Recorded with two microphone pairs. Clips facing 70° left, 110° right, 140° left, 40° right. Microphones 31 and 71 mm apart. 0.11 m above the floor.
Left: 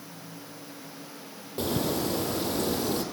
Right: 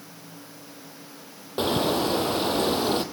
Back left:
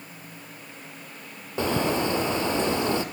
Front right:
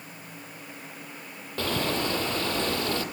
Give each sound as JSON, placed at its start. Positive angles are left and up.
{"t": 1.6, "sound": "a bird", "azimuth_deg": -150, "distance_m": 1.2}